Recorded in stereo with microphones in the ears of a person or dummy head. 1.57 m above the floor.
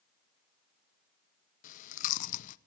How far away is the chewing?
About 0.8 m.